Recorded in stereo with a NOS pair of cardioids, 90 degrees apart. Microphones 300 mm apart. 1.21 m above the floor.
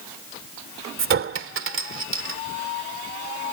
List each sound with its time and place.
1.0 s a clink: 45° right